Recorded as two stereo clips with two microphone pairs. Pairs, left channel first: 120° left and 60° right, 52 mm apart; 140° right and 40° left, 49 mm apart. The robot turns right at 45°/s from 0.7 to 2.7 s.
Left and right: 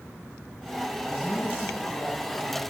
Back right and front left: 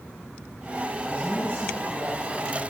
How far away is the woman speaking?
About 4.5 m.